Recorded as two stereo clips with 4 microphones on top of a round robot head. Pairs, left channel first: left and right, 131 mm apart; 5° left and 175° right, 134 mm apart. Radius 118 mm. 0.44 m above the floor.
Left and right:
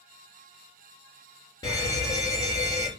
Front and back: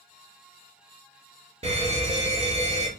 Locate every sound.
1.6 s a fire alarm: 155° left, 4 m